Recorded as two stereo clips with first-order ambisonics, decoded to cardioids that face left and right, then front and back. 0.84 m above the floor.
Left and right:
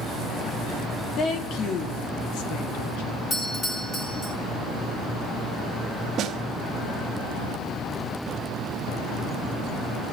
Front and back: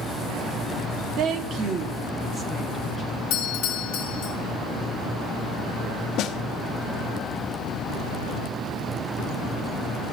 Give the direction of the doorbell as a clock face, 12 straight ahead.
11 o'clock.